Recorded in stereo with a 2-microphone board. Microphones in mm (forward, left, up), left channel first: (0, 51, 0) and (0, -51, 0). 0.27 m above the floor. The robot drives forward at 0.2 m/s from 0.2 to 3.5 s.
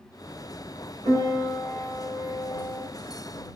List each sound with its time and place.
1.1 s a piano: 40° right (ahead or behind), 6 m